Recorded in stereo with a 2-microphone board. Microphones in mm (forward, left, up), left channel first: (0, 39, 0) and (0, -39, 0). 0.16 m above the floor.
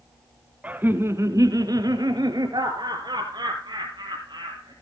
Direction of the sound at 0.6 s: 15° right (ahead or behind).